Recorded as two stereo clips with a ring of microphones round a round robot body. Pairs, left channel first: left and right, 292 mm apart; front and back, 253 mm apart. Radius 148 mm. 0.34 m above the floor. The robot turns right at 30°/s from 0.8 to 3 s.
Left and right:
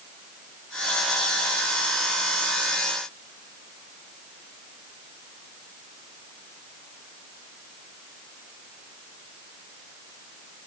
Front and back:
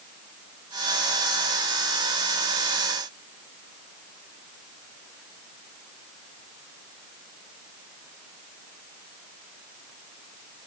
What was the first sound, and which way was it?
Only background noise.